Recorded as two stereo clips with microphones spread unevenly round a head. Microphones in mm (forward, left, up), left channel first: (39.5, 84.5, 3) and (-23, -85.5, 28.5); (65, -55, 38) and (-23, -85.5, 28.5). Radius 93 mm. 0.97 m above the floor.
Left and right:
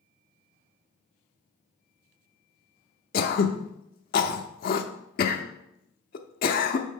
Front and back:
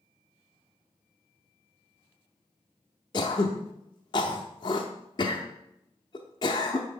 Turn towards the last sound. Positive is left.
turn(degrees=40)